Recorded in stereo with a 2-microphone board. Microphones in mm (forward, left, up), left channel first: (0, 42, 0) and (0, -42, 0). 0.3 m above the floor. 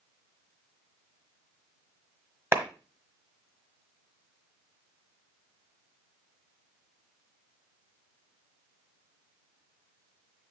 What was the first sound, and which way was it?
A clap, 30° right (ahead or behind).